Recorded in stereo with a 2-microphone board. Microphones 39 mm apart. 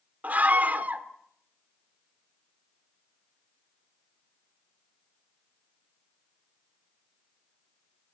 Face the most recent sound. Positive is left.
turn(degrees=-45)  # may be behind; listen again after turning